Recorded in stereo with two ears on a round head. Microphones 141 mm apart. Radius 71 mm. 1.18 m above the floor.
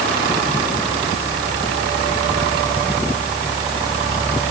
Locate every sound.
Only background noise.